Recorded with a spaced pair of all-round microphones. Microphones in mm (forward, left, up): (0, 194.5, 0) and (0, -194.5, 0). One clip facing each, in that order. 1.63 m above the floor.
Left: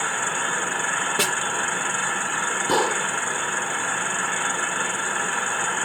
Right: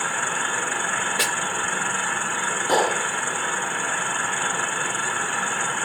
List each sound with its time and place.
1.2 s a snare drum: 60° left (ahead or behind)
2.7 s a gunshot: 20° left (ahead or behind)